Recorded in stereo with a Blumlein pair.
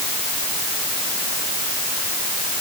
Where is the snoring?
No snoring in this recording.